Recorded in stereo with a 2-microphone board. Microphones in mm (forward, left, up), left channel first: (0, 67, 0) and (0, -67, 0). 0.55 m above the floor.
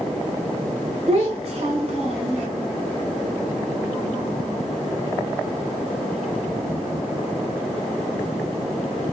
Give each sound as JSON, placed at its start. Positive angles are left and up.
{"t": 1.1, "sound": "a child speaking", "side_deg": -50, "distance_m": 1.4}